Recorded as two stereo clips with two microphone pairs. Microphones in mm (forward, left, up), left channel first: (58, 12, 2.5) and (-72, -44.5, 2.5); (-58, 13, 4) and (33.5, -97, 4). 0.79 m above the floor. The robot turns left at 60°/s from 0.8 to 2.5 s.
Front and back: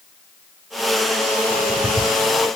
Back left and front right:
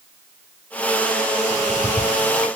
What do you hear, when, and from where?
1.5 s ticking: straight behind, 7 m; by 2.5 s 120° left, 7 m